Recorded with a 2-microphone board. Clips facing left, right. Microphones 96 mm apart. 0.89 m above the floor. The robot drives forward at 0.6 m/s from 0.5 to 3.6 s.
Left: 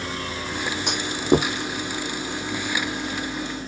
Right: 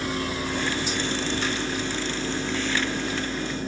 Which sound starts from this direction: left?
A clunk, at 0.9 s.